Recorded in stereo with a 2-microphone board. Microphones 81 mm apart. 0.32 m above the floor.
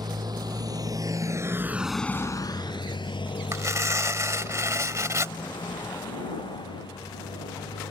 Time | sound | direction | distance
0.0 | a motorcycle | 60° right (ahead or behind) | ?
3.5 | tearing paper | 40° right (ahead or behind) | ?